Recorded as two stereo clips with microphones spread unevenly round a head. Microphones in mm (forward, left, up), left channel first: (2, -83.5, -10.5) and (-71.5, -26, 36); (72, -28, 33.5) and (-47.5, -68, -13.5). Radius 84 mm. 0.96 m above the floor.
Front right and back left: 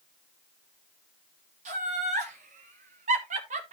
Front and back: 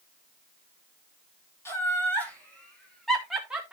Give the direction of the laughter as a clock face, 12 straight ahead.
9 o'clock.